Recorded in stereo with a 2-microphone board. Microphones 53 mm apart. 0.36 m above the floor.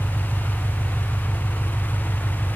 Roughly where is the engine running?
Centre.